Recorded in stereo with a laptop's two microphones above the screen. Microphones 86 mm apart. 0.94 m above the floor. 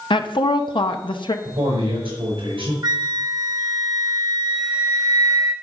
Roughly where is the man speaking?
Right.